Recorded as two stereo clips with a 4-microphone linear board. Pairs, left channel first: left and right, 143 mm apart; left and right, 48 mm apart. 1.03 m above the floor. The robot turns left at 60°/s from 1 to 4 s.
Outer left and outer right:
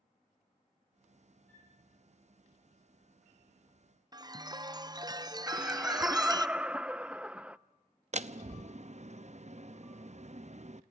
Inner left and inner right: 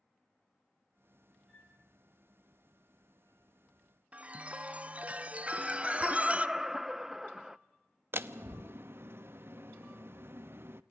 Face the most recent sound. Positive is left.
turn(degrees=-50)  # may be behind; listen again after turning